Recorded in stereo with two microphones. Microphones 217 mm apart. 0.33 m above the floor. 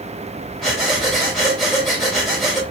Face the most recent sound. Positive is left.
turn(degrees=0)  # may be behind; listen again after turning